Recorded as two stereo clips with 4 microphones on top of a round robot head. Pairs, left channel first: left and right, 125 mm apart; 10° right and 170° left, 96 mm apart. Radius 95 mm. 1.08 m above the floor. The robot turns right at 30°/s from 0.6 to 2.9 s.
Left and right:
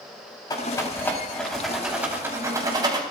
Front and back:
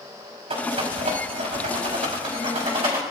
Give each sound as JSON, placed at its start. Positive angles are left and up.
{"t": 0.5, "sound": "a rattle", "azimuth_deg": 150, "distance_m": 4.0}